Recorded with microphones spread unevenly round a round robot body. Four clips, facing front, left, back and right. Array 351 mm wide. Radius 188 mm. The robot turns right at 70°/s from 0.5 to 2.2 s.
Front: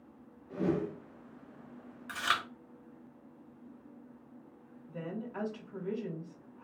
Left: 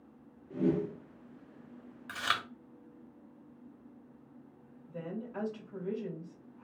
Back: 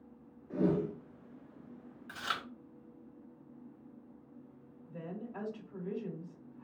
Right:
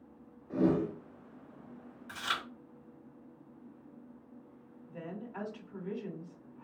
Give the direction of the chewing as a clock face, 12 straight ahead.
10 o'clock.